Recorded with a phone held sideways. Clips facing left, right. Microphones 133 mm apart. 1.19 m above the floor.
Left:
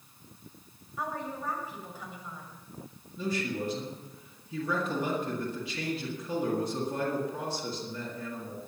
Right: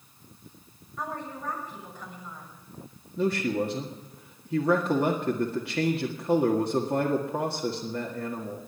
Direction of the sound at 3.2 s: 75° right (ahead or behind).